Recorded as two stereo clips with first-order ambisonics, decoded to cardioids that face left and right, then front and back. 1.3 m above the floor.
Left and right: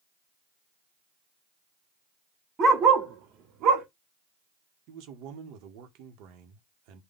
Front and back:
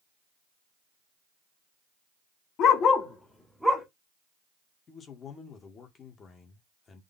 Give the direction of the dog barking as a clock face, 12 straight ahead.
1 o'clock.